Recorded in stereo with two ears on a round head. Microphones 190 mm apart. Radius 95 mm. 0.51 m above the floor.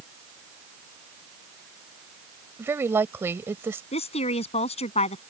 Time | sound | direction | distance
2.6 | a woman speaking | 10° right (ahead or behind) | ?
3.9 | a woman speaking | 30° left (ahead or behind) | ?